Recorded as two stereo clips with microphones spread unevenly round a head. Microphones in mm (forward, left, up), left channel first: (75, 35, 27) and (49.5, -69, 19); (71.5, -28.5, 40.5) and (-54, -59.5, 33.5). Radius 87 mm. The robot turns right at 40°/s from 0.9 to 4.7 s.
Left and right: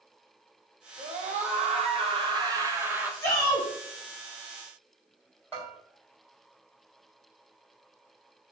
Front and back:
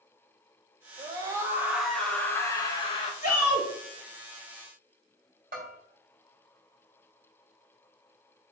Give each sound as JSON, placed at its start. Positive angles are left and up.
{"t": 1.0, "sound": "a scream", "azimuth_deg": -110, "distance_m": 1.7}
{"t": 3.2, "sound": "a shout", "azimuth_deg": -5, "distance_m": 3.0}
{"t": 5.5, "sound": "a bell", "azimuth_deg": 155, "distance_m": 2.5}